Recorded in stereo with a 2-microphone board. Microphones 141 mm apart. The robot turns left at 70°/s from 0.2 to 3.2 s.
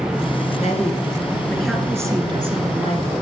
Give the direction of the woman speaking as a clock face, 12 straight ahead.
9 o'clock.